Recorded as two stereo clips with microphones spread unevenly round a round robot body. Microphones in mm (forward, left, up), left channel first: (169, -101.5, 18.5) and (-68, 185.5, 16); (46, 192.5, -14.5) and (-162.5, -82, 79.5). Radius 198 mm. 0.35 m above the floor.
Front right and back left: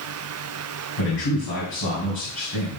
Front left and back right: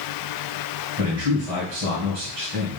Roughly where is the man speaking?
Right.